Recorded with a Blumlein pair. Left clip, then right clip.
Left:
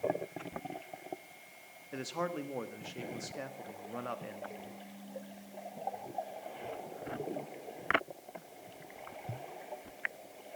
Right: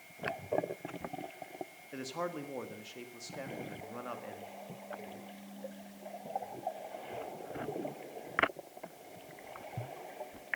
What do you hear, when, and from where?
1.9 s a man speaking: 5° left, 1.6 m